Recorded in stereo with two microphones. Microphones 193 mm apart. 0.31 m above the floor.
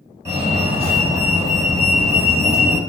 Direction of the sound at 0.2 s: 15° right (ahead or behind).